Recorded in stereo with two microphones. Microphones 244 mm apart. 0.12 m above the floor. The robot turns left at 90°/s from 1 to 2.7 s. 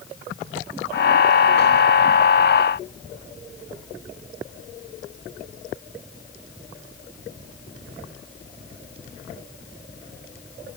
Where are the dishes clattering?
I don't hear dishes clattering.